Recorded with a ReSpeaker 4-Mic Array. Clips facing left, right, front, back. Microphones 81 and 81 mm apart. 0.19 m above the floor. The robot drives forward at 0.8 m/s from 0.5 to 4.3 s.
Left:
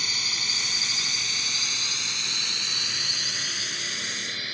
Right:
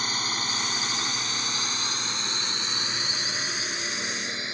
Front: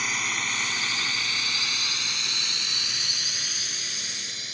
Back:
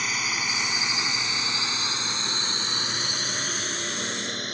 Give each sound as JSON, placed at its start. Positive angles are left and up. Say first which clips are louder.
{"t": 0.0, "sound": "a drone", "louder": "right 5 dB, even", "azimuth_deg": -90}